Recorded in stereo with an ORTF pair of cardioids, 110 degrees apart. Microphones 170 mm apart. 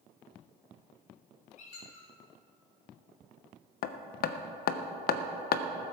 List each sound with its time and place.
1.6 s a squeak: 40° left, 4.5 m
3.8 s hammering: 60° left, 0.9 m